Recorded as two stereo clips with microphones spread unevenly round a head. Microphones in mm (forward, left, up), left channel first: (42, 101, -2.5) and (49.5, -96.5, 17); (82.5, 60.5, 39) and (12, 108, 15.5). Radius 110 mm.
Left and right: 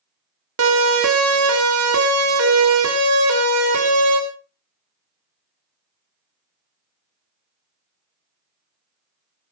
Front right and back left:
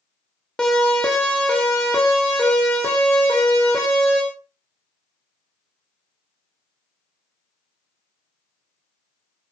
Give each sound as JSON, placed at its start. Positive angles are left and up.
{"t": 0.6, "sound": "a siren", "azimuth_deg": -120, "distance_m": 3.0}